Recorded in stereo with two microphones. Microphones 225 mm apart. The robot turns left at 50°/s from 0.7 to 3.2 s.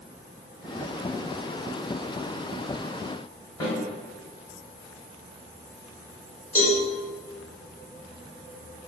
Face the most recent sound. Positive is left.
turn(degrees=85)